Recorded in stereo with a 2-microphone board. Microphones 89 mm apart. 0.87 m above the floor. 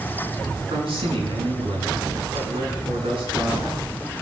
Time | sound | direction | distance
0.7 | a man speaking | 80° right | 8.5 m